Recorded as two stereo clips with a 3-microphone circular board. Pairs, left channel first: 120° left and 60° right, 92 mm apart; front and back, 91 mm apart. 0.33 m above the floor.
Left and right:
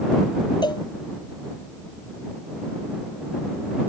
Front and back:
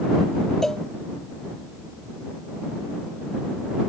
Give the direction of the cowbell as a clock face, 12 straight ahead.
9 o'clock.